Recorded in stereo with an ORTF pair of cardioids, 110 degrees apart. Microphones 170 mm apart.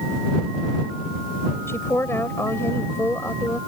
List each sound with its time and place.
1.7 s a woman speaking: 15° left